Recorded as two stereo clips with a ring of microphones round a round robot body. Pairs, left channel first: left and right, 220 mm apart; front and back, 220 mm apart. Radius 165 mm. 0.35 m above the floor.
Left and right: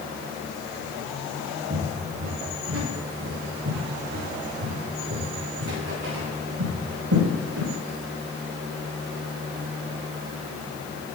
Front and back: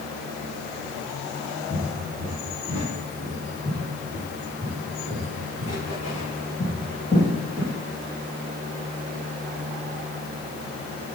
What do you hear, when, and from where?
1.7 s footsteps: 70° right, 6.5 m